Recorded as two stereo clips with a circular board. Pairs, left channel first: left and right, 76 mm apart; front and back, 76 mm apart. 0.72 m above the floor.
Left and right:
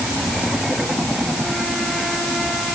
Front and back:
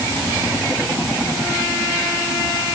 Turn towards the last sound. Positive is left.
No sound to turn to.